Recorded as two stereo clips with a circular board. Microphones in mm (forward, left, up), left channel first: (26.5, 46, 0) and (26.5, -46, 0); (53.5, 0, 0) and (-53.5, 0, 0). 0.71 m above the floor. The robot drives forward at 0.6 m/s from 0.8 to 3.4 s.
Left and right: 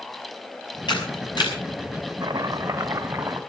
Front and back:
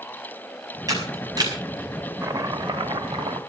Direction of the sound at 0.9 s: 125° left.